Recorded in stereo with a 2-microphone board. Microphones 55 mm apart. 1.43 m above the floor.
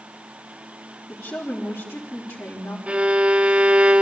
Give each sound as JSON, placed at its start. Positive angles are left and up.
{"t": 1.1, "sound": "a woman speaking", "side_deg": 50, "distance_m": 3.5}
{"t": 2.9, "sound": "a violin", "side_deg": -20, "distance_m": 1.3}